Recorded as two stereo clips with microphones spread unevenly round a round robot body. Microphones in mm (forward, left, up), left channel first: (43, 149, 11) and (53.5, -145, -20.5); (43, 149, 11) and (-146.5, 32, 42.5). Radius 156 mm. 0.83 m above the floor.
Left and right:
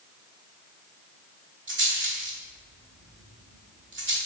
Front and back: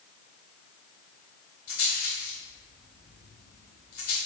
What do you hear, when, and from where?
1.7 s a rattle: 35° right, 1.1 m